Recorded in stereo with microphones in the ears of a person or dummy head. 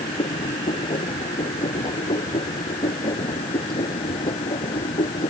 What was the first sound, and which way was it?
A machine running, 25° left (ahead or behind).